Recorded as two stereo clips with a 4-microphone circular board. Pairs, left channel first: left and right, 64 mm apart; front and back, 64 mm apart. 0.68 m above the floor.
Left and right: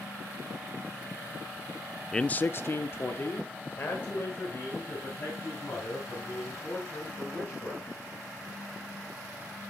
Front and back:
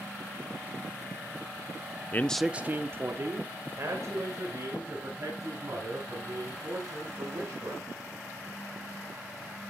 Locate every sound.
2.1 s a man speaking: 15° left, 0.5 m; by 7.9 s 150° left, 7.5 m